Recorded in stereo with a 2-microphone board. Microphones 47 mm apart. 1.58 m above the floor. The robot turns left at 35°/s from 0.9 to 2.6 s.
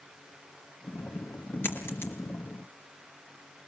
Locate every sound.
1.6 s a dropped coin: 50° left (ahead or behind), 3.5 m; by 2.1 s 65° left (ahead or behind), 3.5 m